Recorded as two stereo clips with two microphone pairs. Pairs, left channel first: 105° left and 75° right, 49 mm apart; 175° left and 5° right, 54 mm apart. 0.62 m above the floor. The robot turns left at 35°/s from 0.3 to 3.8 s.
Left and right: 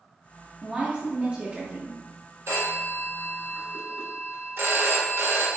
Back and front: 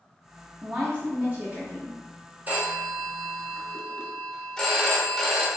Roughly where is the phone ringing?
Ahead right.